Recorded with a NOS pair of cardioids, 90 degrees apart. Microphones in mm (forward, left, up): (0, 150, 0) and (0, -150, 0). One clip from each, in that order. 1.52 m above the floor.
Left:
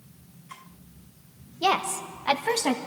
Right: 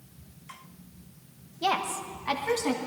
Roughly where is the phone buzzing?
I don't hear a phone buzzing.